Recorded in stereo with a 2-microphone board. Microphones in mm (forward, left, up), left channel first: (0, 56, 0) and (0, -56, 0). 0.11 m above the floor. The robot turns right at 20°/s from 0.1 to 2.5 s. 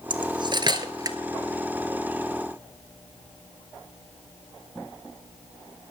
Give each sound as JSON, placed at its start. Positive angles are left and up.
{"t": 0.1, "sound": "cutlery clinking", "side_deg": -45, "distance_m": 1.1}